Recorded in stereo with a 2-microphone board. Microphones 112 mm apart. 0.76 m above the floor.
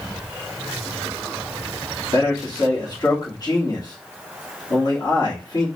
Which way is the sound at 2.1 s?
40° left (ahead or behind).